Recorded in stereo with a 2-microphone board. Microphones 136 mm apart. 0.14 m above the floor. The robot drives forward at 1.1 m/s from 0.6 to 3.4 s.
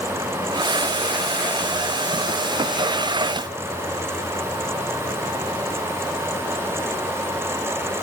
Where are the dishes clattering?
I don't hear dishes clattering.